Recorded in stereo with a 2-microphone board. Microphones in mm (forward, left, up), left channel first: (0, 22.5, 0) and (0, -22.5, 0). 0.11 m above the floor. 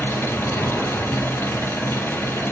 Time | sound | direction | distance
0.0 | an engine running | 65° left (ahead or behind) | 1.0 m